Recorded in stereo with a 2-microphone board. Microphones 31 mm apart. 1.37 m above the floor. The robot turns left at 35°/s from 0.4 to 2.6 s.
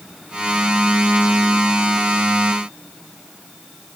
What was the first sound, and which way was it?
Only background noise.